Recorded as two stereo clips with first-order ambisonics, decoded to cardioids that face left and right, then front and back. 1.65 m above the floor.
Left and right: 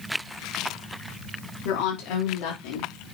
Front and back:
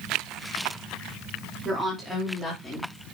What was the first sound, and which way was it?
A woman speaking, 105° left.